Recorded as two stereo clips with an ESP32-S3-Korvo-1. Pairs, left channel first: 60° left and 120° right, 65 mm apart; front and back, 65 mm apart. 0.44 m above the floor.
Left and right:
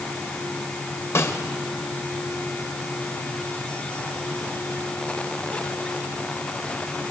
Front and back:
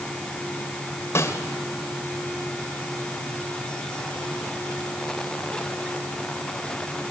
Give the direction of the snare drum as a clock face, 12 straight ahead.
11 o'clock.